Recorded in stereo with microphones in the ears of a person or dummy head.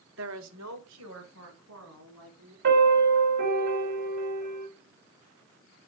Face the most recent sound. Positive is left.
turn(degrees=-60)  # may be behind; listen again after turning